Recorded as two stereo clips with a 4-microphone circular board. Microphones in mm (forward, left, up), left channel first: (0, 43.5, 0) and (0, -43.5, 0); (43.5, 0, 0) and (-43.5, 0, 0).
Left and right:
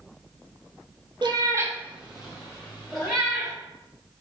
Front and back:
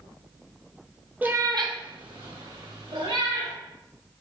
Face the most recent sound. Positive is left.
turn(degrees=170)